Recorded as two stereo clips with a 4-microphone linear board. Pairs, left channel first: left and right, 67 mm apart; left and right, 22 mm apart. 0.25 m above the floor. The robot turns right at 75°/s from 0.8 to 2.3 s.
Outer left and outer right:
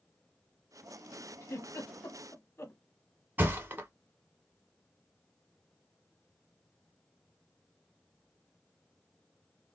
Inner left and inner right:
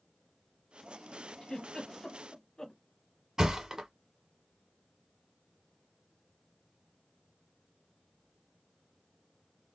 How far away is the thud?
About 0.9 m.